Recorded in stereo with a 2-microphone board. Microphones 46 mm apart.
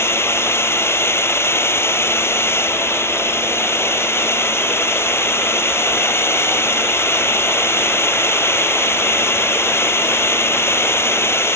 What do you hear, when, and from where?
0.0 s a drone: 75° left (ahead or behind)